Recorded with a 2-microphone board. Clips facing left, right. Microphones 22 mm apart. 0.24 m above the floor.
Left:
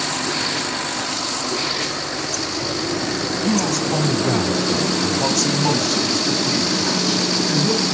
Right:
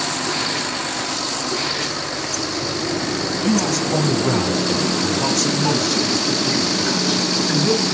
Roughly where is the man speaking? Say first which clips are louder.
Right 1 dB; centre.